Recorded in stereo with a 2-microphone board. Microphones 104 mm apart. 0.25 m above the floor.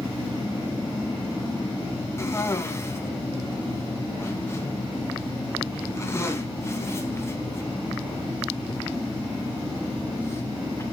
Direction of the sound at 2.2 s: 25° left (ahead or behind).